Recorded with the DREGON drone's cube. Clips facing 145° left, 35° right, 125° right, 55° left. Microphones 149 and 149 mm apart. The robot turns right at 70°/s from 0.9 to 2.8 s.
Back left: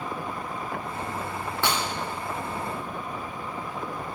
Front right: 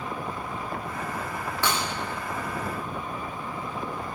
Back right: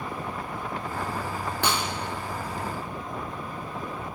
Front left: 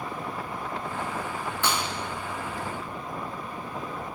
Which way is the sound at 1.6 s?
145° right.